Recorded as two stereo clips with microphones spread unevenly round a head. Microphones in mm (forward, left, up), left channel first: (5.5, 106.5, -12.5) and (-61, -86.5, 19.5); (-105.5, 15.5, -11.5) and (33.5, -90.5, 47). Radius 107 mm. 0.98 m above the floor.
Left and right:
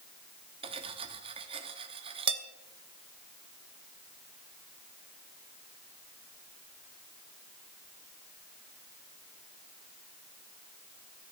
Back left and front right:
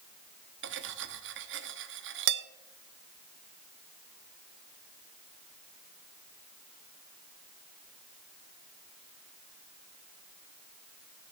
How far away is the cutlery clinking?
About 1.0 m.